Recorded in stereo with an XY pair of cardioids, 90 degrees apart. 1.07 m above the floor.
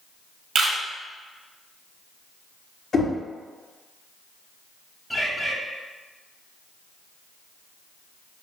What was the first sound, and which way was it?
A camera shutter, 60° right.